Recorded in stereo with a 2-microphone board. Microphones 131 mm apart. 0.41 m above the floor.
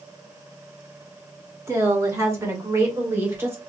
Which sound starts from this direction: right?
A woman speaking, at 1.7 s.